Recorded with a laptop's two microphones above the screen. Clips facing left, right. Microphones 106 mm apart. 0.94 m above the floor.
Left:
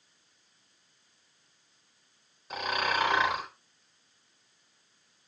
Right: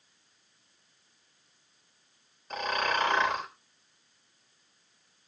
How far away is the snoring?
About 4 m.